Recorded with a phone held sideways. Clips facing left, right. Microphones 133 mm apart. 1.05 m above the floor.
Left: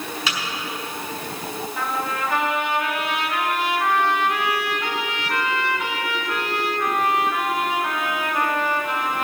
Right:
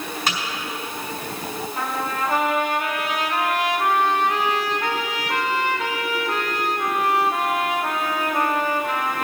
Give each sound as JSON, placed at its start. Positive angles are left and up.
{"t": 0.3, "sound": "a microwave", "side_deg": -50, "distance_m": 4.0}
{"t": 1.8, "sound": "a trumpet", "side_deg": -40, "distance_m": 1.6}